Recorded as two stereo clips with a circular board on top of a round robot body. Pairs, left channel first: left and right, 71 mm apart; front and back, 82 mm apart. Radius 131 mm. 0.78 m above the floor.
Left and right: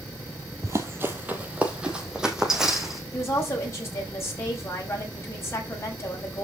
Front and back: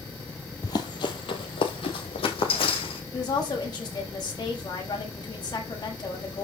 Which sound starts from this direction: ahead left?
A woman speaking, at 3.1 s.